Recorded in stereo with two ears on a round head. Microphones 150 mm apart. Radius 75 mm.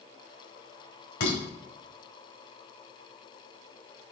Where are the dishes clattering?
75° left (ahead or behind), 2.5 m.